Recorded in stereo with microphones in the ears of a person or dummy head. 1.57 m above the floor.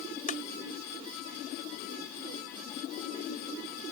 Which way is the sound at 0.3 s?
40° left (ahead or behind).